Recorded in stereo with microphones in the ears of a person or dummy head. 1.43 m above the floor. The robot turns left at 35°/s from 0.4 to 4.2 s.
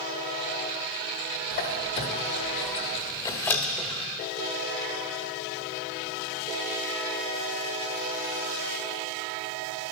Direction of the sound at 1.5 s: 50° left (ahead or behind).